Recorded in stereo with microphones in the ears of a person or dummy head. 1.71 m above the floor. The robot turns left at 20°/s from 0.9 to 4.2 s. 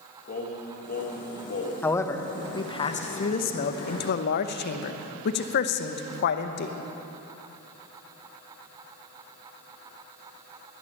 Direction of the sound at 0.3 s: 45° left (ahead or behind).